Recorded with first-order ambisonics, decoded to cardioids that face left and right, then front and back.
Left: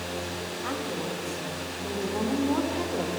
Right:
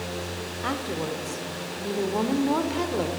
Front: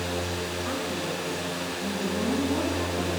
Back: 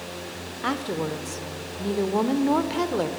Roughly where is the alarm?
No alarm in this recording.